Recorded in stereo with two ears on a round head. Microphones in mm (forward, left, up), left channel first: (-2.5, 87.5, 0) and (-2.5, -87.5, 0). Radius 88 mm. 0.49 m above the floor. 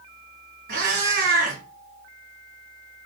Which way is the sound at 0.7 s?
45° right (ahead or behind).